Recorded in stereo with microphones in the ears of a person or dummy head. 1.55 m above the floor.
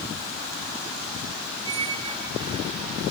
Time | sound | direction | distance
1.6 | a squeak | 30° right (ahead or behind) | 1.1 m